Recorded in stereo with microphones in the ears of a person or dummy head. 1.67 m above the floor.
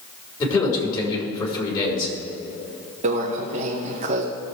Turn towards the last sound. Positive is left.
turn(degrees=-35)  # may be behind; listen again after turning